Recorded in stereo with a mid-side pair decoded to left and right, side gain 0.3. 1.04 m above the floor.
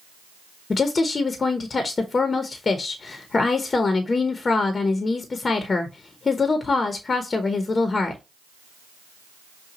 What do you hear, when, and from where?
0.7 s a woman speaking: 50° left, 0.8 m